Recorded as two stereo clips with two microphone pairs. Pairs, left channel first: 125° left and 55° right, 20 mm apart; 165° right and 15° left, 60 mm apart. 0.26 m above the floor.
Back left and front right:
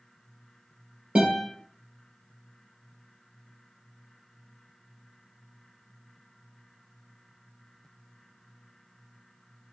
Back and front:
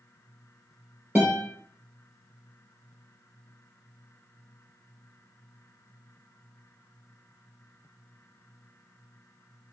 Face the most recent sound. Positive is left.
turn(degrees=-50)